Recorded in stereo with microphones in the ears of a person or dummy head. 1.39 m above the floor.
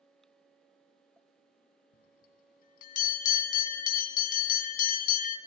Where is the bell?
45° left (ahead or behind), 3 m.